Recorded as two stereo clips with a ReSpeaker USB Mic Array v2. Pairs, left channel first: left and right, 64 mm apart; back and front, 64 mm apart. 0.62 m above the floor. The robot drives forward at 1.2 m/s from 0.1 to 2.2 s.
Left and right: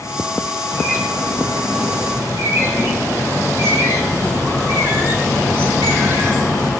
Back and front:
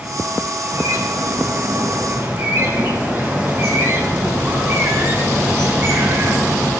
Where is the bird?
35° right, 6.5 m; by 6.7 s 45° right, 5 m.